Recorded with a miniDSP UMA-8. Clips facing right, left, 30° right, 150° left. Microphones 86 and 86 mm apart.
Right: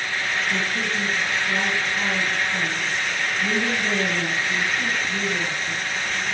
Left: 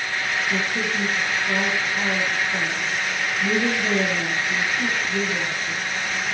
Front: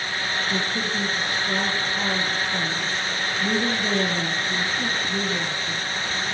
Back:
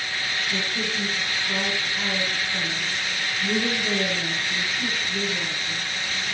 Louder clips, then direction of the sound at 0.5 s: Left 1 dB, front 3 dB; 15° left.